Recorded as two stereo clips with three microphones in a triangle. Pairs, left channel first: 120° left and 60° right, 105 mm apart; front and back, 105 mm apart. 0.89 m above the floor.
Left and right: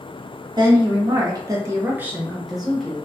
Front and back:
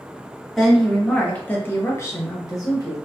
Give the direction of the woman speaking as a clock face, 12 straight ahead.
3 o'clock.